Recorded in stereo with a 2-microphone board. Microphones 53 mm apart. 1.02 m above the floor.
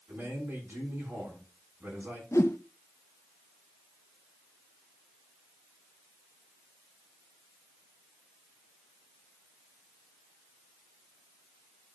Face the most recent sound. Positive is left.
turn(degrees=70)  # may be behind; listen again after turning